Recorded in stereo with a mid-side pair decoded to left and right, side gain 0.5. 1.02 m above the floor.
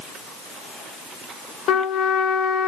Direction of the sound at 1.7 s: 70° left.